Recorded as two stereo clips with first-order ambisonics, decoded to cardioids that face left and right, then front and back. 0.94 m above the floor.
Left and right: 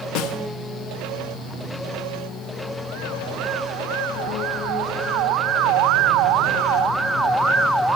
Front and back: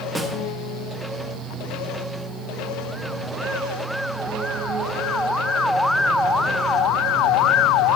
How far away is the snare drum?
About 0.9 m.